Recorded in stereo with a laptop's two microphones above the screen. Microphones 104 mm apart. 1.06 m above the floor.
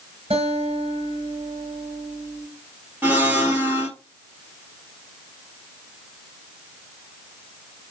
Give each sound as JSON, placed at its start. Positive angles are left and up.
{"t": 0.3, "sound": "a guitar", "side_deg": -65, "distance_m": 5.5}
{"t": 3.0, "sound": "a blender", "side_deg": -15, "distance_m": 1.9}